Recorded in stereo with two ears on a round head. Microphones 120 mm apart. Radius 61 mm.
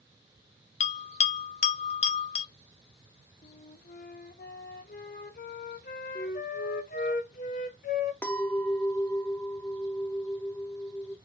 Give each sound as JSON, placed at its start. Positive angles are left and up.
{"t": 0.8, "sound": "a bell", "side_deg": 55, "distance_m": 0.5}
{"t": 3.4, "sound": "a flute", "side_deg": 65, "distance_m": 0.6}
{"t": 6.2, "sound": "a flute", "side_deg": 65, "distance_m": 0.7}
{"t": 8.2, "sound": "a clink", "side_deg": 15, "distance_m": 0.6}